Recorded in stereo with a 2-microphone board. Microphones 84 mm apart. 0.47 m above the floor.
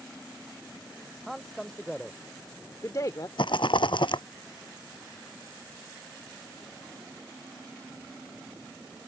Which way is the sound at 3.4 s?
70° left (ahead or behind).